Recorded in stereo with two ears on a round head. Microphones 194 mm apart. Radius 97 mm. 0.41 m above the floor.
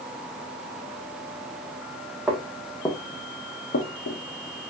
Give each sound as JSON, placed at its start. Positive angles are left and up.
{"t": 2.3, "sound": "footsteps", "side_deg": -5, "distance_m": 1.1}